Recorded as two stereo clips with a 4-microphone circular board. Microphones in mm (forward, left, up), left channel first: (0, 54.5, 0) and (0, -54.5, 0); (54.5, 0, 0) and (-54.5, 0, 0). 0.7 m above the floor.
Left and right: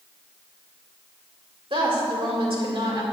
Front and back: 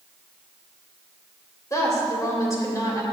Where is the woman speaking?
60° right, 3 m.